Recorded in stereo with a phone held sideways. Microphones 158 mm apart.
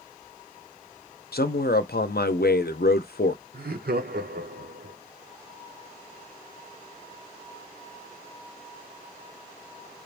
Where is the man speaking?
85° left, 0.6 m.